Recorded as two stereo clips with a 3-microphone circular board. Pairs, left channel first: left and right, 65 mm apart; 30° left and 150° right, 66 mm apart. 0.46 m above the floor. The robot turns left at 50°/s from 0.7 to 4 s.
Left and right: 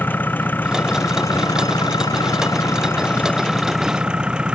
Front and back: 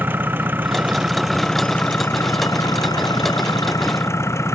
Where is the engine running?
150° left; by 4.5 s 15° right.